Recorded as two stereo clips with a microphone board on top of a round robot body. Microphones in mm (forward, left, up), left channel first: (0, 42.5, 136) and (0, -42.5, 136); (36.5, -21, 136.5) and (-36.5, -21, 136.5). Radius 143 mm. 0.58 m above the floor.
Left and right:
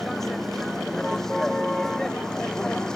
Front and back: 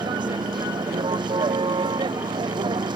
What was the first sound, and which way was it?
A vehicle, 175° left.